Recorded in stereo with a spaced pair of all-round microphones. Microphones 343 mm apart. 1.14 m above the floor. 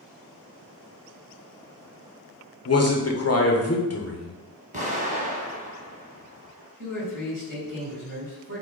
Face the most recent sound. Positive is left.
turn(degrees=-55)  # may be behind; listen again after turning